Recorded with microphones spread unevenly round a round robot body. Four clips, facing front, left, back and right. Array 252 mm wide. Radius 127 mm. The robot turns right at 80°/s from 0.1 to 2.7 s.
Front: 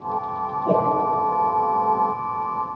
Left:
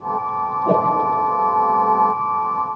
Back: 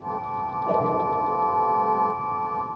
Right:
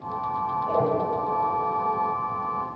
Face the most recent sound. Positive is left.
turn(degrees=-125)